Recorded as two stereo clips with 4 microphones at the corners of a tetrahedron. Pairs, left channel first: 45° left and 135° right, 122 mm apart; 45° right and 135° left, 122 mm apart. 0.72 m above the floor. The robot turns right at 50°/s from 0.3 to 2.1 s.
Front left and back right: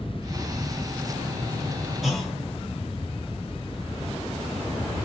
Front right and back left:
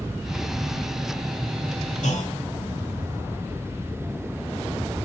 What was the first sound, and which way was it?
A clunk, 45° right.